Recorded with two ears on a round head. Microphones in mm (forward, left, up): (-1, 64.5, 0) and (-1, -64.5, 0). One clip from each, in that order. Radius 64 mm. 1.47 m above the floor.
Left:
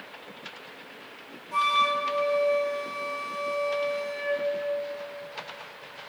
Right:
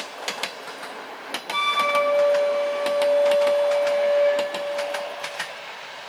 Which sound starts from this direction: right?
A flute, at 1.5 s.